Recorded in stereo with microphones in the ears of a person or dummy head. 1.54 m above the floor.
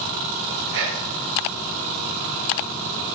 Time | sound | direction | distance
0.7 | whispering | 70° right (ahead or behind) | 0.9 m